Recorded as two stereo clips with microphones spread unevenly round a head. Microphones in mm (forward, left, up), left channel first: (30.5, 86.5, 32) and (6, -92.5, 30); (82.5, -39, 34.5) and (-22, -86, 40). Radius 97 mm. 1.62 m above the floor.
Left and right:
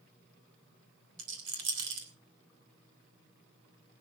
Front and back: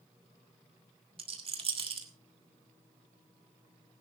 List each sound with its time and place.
1.2 s a rattle: 125° right, 3 m